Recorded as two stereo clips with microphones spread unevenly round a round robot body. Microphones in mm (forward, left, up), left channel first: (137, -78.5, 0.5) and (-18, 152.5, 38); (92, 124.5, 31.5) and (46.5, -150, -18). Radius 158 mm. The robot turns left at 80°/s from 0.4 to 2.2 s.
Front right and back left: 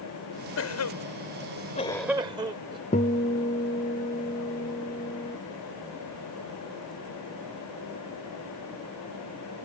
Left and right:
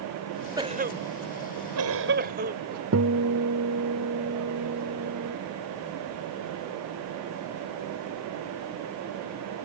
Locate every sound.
0.6 s a cough: 25° right; by 2.8 s 155° right
2.9 s a guitar: 115° right